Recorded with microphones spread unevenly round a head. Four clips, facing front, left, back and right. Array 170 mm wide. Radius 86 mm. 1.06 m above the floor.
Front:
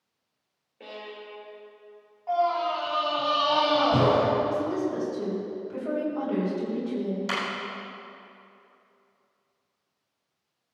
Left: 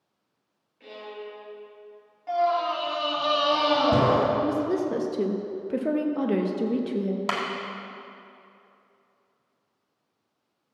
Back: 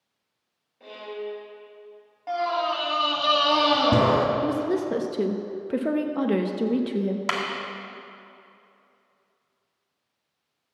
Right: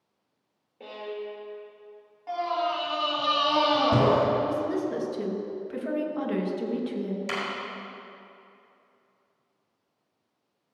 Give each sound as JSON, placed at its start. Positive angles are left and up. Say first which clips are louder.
{"t": 0.8, "sound": "a violin", "louder": "right 3 dB, back 6 dB", "azimuth_deg": -50, "distance_m": 3.5}
{"t": 2.3, "sound": "a scream", "louder": "left 4 dB, front 1 dB", "azimuth_deg": -175, "distance_m": 2.5}
{"t": 4.4, "sound": "a woman speaking", "louder": "left 2 dB, back 2 dB", "azimuth_deg": 150, "distance_m": 1.1}
{"t": 7.3, "sound": "a clap", "louder": "left 3 dB, back 3 dB", "azimuth_deg": 125, "distance_m": 1.6}